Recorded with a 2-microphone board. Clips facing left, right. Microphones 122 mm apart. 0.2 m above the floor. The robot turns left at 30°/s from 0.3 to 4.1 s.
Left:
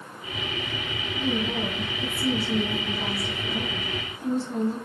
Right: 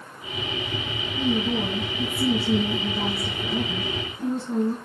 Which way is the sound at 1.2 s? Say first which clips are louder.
Right 3 dB; 45° right.